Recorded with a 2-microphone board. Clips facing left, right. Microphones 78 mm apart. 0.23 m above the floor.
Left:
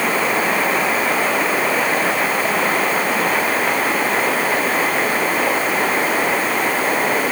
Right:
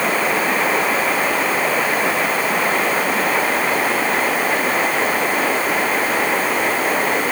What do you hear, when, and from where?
Only background noise.